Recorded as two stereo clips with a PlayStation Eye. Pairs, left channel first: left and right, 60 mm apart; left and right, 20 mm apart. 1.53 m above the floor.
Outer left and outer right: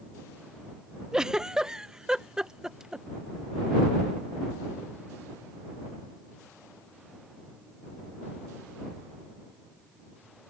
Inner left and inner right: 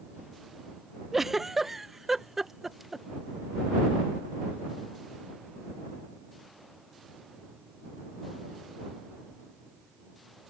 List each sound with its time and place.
1.1 s a giggle: 10° right (ahead or behind)